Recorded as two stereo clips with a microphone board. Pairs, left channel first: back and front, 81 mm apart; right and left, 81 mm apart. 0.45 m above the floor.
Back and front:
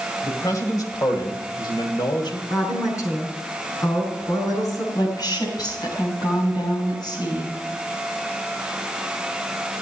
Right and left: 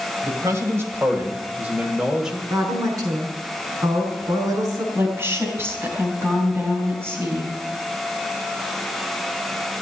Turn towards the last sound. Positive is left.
turn(degrees=150)